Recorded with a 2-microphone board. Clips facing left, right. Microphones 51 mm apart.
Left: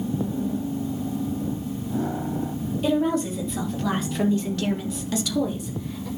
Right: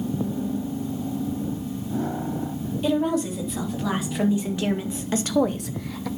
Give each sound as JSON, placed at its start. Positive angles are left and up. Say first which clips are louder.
{"t": 2.8, "sound": "a woman speaking", "louder": "even", "side_deg": 0, "distance_m": 3.5}